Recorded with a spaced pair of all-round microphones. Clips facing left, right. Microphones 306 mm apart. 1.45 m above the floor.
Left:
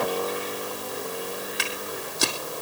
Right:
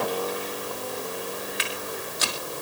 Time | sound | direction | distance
1.6 | footsteps | 60° left (ahead or behind) | 3 m